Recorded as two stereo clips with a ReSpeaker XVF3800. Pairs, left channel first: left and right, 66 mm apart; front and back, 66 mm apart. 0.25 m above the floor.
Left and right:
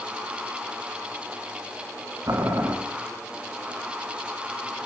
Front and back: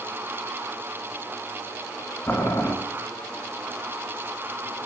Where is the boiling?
55° right, 0.8 m.